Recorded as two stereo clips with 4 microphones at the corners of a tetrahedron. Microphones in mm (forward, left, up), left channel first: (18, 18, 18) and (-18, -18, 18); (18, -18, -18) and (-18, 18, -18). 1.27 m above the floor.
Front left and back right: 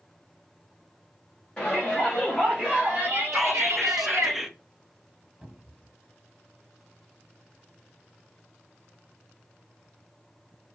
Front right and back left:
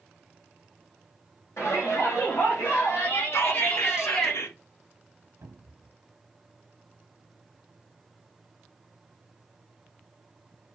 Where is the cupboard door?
160° left, 1.1 m.